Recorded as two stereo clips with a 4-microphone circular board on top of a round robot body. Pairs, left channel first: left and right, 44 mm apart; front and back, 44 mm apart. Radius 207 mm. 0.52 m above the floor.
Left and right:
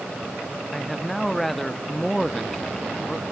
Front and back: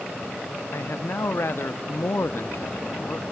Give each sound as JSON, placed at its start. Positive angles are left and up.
{"t": 0.7, "sound": "a man speaking", "azimuth_deg": 0, "distance_m": 1.1}